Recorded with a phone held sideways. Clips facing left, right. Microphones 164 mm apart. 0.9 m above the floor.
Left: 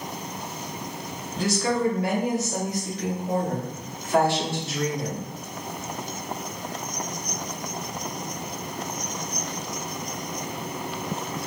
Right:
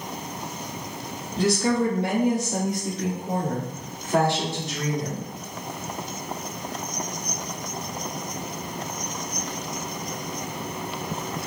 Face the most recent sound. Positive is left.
turn(degrees=-20)  # may be behind; listen again after turning